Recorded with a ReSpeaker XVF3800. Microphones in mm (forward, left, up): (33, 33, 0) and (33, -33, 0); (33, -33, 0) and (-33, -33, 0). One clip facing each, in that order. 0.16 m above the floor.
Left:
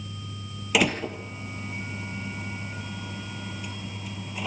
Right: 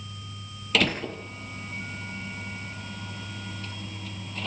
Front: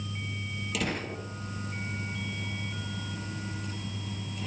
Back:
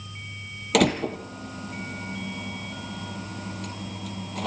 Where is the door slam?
165° left, 3 m.